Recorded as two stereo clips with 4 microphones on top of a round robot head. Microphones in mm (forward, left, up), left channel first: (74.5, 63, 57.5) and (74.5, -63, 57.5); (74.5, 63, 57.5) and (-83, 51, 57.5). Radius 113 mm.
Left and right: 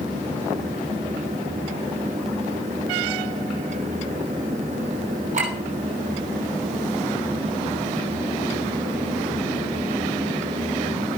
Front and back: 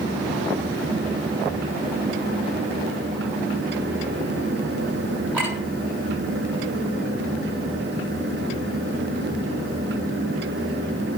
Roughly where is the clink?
Right.